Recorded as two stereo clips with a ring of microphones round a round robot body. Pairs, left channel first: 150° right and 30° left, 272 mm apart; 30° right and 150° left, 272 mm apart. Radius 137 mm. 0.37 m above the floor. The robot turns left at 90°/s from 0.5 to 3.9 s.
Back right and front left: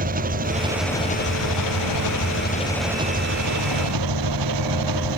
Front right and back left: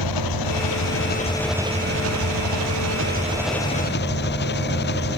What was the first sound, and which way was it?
An engine running, 30° right.